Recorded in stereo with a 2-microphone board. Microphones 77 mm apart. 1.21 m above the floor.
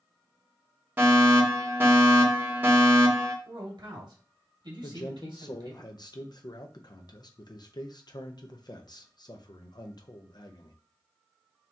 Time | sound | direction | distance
1.0 | a fire alarm | 25° right (ahead or behind) | 2 m
3.5 | a man speaking | 75° right (ahead or behind) | 2.5 m
4.8 | a man speaking | 60° left (ahead or behind) | 0.9 m